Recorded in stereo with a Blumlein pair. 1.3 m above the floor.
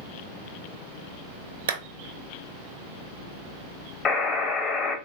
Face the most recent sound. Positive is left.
turn(degrees=25)